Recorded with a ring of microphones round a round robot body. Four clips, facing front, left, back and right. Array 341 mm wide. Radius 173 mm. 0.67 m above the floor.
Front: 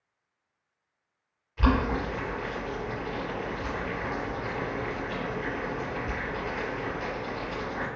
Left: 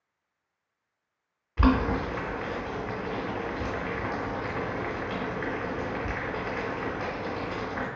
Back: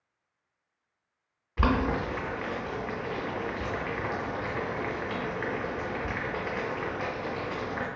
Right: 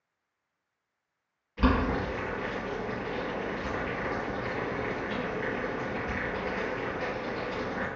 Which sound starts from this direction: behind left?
Boiling, at 1.6 s.